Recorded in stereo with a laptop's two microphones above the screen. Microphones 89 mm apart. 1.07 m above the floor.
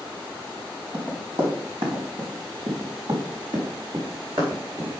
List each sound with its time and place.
0.9 s running footsteps: 55° right (ahead or behind), 4 m; by 4.9 s 80° right, 6 m